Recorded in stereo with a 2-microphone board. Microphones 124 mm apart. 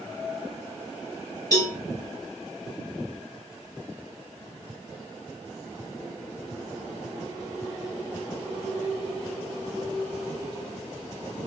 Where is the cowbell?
30° left (ahead or behind), 1.0 m.